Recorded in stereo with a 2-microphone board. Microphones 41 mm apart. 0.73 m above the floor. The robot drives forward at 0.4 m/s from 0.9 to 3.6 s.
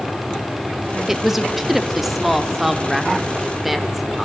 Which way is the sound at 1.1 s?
5° right (ahead or behind).